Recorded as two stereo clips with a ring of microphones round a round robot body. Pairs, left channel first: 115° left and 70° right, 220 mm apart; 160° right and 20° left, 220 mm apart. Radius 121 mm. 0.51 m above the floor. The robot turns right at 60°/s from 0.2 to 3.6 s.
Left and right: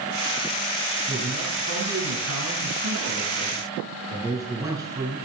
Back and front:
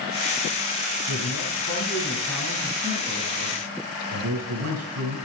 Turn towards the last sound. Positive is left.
turn(degrees=10)